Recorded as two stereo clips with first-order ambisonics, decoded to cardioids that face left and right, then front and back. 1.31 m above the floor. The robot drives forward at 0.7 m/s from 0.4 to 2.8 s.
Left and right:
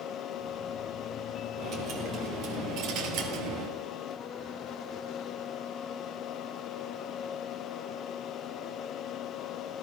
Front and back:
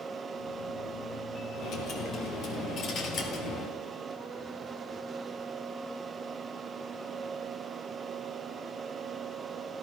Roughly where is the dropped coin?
Ahead right.